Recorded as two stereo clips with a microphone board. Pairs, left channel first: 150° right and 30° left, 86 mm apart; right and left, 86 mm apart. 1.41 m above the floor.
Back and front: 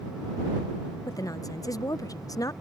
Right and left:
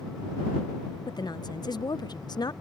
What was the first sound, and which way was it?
A woman speaking, 115° right.